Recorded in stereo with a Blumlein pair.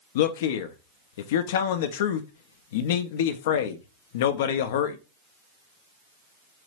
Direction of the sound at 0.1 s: 55° left.